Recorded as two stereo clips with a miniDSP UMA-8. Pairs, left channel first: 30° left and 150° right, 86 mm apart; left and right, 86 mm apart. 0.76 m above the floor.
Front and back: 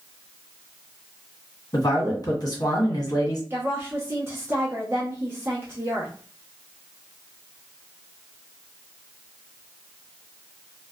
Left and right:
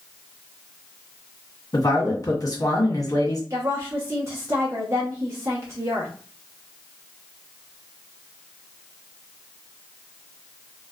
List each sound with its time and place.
1.7 s a man speaking: 55° left, 1.5 m
3.5 s a woman speaking: 110° right, 0.8 m